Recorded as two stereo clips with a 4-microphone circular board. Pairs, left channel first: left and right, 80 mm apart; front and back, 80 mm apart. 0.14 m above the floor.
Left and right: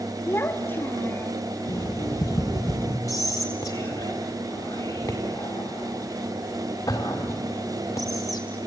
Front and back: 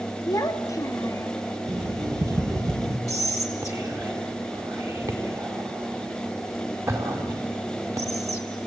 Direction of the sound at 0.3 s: 35° left.